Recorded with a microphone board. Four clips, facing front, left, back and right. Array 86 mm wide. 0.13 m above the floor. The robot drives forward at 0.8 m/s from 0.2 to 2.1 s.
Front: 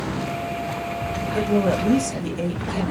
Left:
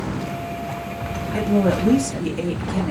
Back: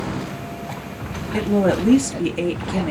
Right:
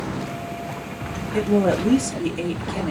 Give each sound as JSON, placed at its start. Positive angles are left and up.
{"t": 1.3, "sound": "a woman speaking", "azimuth_deg": 175, "distance_m": 2.0}